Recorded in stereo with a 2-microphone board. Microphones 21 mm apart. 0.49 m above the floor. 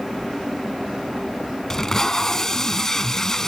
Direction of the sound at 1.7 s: 20° left (ahead or behind).